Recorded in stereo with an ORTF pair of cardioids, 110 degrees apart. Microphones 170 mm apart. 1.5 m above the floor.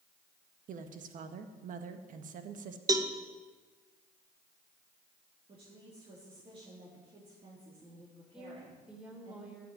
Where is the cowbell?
20° right, 1.2 m.